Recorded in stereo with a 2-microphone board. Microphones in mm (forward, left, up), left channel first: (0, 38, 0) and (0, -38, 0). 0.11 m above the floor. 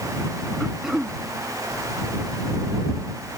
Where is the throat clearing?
5° right (ahead or behind).